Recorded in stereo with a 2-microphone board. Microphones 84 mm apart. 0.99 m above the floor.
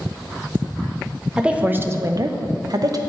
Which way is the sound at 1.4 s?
10° right (ahead or behind).